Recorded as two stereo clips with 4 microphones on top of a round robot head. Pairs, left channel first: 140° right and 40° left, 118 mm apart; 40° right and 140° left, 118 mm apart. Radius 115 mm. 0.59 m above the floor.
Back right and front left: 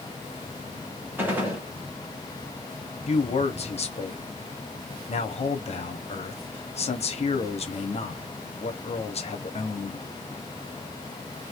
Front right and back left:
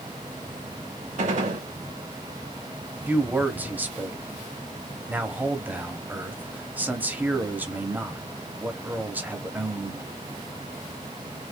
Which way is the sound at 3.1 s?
150° right.